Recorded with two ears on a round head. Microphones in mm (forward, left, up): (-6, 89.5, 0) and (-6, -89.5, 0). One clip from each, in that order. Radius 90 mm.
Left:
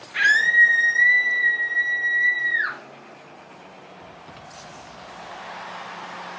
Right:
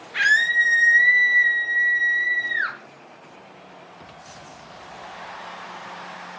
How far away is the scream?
About 0.7 m.